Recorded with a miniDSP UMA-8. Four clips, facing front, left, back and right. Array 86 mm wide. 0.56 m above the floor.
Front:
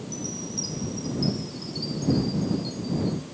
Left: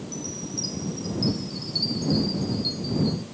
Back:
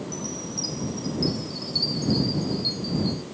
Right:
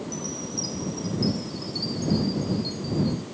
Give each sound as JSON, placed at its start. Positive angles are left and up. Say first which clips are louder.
{"t": 0.1, "sound": "a chime", "louder": "right 1 dB, back 1 dB", "azimuth_deg": 150}